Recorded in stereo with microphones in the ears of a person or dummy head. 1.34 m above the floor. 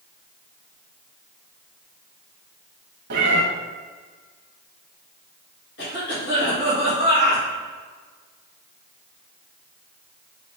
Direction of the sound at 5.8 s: 65° left (ahead or behind).